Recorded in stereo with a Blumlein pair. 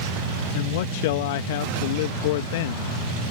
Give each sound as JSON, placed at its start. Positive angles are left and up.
{"t": 0.5, "sound": "a man speaking", "azimuth_deg": 50}